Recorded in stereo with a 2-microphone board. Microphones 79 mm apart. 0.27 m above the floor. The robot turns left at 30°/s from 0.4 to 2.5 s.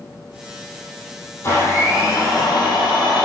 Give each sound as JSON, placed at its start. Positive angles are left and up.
{"t": 1.4, "sound": "a blender", "azimuth_deg": 150, "distance_m": 4.5}